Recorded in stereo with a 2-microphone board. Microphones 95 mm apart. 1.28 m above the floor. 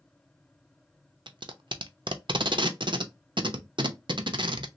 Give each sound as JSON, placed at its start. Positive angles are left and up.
{"t": 1.3, "sound": "tape being pulled", "side_deg": -55, "distance_m": 0.5}